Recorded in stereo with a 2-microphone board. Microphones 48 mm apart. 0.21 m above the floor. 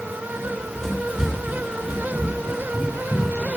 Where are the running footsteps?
10° left (ahead or behind), 3.5 m; by 3.5 s 10° right (ahead or behind), 5.5 m.